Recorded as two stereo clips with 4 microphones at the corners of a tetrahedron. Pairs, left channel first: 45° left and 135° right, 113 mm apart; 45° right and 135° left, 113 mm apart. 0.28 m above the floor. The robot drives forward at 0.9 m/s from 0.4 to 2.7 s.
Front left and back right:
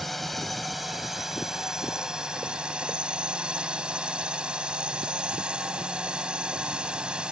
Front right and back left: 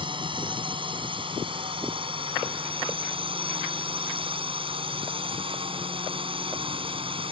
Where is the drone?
135° left; by 7.3 s 145° left.